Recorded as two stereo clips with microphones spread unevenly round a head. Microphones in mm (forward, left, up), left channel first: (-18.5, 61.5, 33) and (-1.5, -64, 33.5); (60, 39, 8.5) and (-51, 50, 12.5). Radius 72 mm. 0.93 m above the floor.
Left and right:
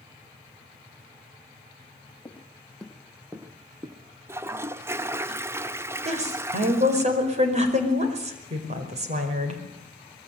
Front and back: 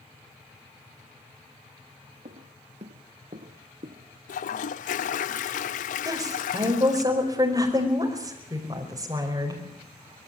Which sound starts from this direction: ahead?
A toilet flushing, at 4.3 s.